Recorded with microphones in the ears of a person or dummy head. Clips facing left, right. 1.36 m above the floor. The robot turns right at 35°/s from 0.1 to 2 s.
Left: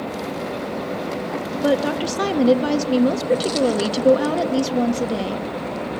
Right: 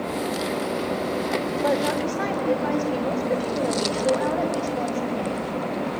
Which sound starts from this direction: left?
A woman speaking, at 1.6 s.